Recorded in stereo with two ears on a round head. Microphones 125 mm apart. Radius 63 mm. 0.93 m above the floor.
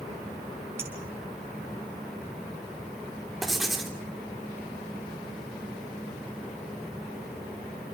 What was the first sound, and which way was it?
A clink, 20° right (ahead or behind).